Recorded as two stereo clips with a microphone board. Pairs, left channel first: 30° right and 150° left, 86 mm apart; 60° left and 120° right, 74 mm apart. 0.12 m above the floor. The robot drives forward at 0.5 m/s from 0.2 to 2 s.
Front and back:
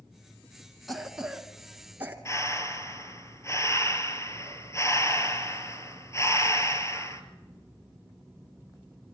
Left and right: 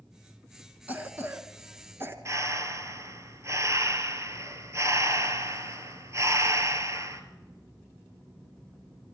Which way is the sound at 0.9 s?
120° right.